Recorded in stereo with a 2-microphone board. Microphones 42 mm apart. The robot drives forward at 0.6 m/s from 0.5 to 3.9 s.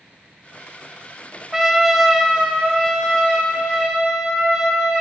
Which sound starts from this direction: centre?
A trumpet, at 1.5 s.